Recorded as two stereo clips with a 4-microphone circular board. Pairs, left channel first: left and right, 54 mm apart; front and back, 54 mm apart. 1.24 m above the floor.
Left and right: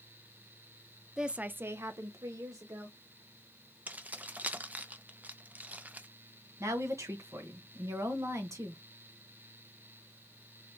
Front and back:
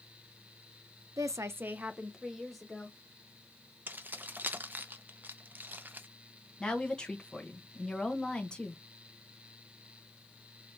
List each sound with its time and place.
1.2 s a woman speaking: 170° right, 0.6 m; by 3.0 s 80° right, 1.4 m
3.9 s keys jangling: 140° right, 0.5 m
6.6 s a woman speaking: 75° right, 1.3 m